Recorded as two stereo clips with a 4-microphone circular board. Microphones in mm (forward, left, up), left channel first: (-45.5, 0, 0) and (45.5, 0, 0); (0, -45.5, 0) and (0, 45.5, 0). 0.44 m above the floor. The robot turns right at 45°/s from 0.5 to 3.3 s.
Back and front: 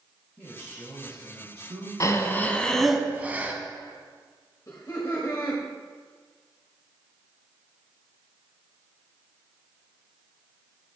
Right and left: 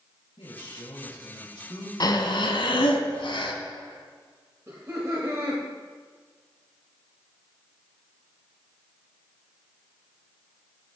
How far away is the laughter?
About 1.6 m.